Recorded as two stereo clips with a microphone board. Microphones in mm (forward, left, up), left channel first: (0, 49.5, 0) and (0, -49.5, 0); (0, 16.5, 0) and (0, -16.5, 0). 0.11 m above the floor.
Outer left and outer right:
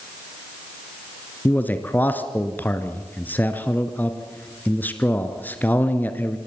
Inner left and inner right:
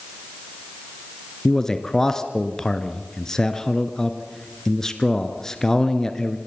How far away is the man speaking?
About 1.4 m.